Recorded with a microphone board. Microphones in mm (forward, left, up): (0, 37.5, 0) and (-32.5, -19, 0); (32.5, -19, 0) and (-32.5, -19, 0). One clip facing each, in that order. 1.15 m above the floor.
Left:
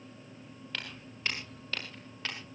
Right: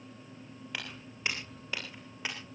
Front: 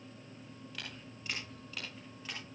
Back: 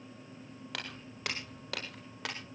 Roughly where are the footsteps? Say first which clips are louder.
Even, back 5 dB; behind.